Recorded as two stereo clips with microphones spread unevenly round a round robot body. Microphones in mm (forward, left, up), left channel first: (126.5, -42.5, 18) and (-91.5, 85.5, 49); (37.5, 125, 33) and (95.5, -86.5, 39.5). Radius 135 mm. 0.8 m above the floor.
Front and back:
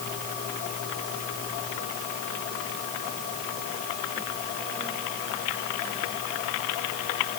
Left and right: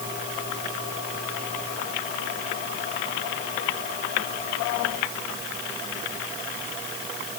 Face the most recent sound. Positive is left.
No sound to turn to.